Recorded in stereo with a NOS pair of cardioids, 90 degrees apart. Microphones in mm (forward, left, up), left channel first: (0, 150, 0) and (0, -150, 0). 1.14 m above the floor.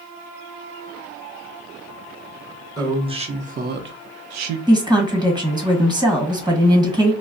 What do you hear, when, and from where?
2.8 s a woman speaking: 10° right, 1.1 m; by 4.6 s 75° right, 0.6 m
4.7 s a woman speaking: 15° right, 1.3 m